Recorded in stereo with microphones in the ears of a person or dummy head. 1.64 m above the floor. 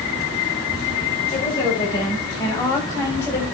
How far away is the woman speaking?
About 7 m.